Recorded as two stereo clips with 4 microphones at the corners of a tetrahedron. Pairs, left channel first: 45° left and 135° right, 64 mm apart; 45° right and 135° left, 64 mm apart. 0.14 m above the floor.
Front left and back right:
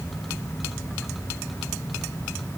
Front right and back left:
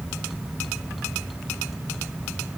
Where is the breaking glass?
I don't hear breaking glass.